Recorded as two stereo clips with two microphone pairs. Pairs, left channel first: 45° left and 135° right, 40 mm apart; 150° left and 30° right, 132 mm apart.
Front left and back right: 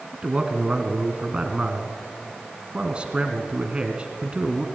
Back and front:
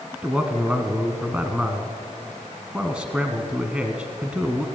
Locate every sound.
0.1 s a man speaking: 105° right, 1.5 m